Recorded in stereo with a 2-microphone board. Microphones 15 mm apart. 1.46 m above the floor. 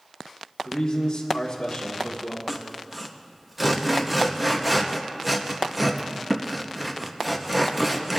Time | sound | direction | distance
0.7 | a man speaking | 60° left (ahead or behind) | 1.6 m
2.5 | sawing | 5° right (ahead or behind) | 0.9 m